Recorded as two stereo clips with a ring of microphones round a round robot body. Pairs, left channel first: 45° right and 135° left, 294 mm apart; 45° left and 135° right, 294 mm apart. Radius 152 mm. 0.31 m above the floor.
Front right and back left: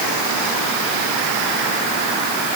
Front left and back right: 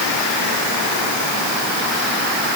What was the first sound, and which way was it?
Only background noise.